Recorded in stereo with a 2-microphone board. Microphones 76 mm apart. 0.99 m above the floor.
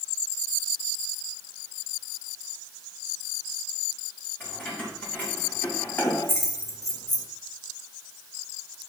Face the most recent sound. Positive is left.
turn(degrees=65)  # may be behind; listen again after turning